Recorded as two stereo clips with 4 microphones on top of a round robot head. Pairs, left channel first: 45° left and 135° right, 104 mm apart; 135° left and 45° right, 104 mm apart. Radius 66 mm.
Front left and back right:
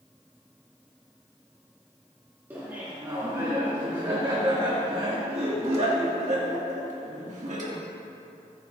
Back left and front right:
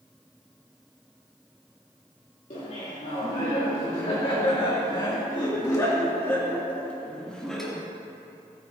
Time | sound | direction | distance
2.5 | laughter | 155° left | 2.5 m